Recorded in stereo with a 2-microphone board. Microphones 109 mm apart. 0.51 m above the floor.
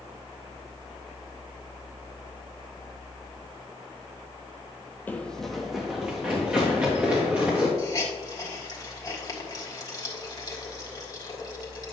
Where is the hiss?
35° left (ahead or behind), 1.7 m.